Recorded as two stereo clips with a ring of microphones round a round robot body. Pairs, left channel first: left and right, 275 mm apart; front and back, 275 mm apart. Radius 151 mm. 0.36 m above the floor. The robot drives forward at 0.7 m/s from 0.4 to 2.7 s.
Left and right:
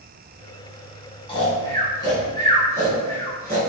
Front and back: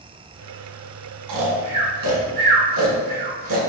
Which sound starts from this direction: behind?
Snoring, at 1.3 s.